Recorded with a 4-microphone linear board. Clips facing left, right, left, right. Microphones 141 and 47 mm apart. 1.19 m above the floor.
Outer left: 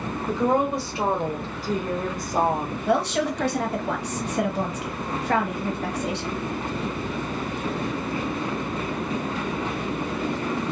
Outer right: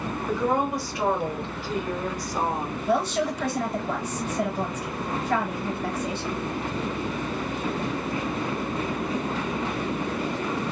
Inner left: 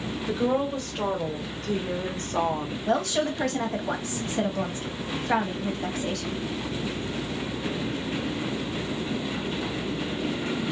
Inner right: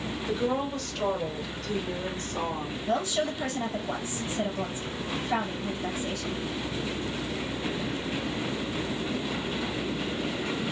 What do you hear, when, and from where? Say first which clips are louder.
0.3 s a woman speaking: outer left 3 dB, inner left 3 dB; 20° left (ahead or behind), 1.5 m; by 2.8 s 50° left (ahead or behind), 0.9 m
2.9 s a woman speaking: outer left 2 dB, inner left 3 dB; 80° left, 1.2 m